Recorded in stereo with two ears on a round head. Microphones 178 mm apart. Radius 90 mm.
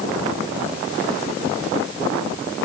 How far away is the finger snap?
I don't hear a finger snap.